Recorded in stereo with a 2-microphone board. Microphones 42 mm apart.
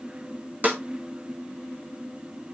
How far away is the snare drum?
About 1.4 m.